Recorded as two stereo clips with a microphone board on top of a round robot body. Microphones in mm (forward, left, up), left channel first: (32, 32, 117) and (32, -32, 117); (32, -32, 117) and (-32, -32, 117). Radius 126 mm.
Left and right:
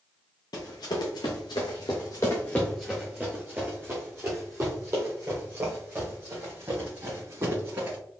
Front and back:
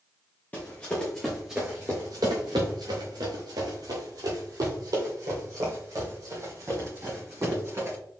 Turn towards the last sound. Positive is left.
turn(degrees=-140)